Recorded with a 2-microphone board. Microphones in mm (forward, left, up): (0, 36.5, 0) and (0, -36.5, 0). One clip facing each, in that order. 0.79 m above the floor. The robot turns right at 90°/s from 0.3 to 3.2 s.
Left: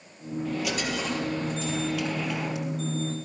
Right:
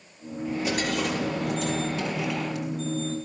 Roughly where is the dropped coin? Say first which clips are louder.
Right 3 dB; behind.